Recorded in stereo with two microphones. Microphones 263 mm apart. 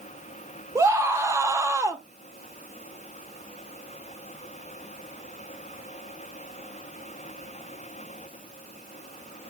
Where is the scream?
10° right (ahead or behind), 1.2 m.